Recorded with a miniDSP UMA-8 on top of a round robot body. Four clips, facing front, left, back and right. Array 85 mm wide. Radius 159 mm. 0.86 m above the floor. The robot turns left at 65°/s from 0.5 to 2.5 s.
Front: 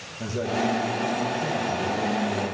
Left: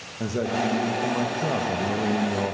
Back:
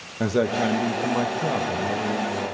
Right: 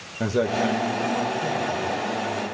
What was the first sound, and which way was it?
A man speaking, 160° right.